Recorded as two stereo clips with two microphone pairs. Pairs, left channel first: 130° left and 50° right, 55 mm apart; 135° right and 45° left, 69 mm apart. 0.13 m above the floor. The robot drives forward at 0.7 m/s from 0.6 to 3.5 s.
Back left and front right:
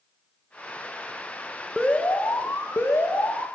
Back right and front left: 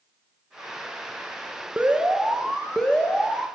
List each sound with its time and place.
1.8 s an alarm: 80° left, 0.8 m; by 3.5 s 160° left, 1.4 m